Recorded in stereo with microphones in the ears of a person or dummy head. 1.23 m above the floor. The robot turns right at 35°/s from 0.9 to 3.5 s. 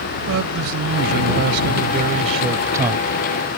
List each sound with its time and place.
0.3 s a man speaking: 85° right; by 3.1 s 10° right